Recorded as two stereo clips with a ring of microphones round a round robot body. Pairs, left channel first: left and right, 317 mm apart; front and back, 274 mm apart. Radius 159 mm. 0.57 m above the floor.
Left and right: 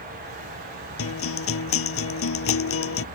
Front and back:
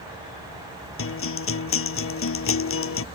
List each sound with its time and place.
1.0 s a guitar: 40° left